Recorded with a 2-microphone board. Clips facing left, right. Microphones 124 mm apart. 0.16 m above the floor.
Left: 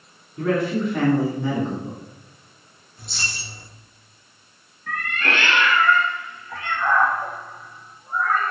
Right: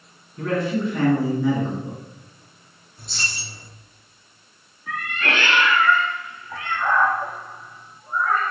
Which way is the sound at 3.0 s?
Centre (ahead or behind).